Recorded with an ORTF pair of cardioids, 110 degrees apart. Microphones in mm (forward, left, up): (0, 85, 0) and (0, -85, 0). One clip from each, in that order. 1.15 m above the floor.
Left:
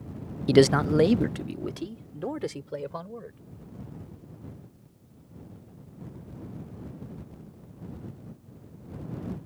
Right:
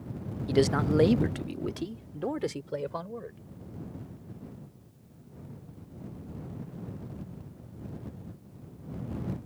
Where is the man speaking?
50° left; by 3.4 s 5° right.